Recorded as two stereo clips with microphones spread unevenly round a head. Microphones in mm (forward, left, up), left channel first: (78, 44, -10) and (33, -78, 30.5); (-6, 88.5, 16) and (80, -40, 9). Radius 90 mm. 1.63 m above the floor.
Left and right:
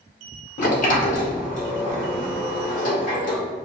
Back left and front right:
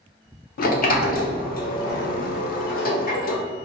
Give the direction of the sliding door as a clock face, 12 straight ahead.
9 o'clock.